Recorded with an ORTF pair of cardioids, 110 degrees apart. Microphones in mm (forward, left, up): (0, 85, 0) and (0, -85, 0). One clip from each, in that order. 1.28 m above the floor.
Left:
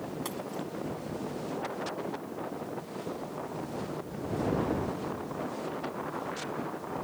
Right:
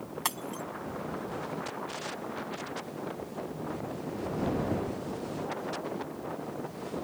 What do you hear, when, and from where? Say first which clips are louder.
0.2 s breaking glass: right 2 dB; 60° right